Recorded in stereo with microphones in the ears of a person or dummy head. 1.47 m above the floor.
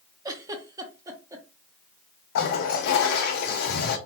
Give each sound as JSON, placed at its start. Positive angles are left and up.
{"t": 0.2, "sound": "a giggle", "side_deg": -20, "distance_m": 0.8}
{"t": 2.4, "sound": "a toilet flushing", "side_deg": 60, "distance_m": 0.7}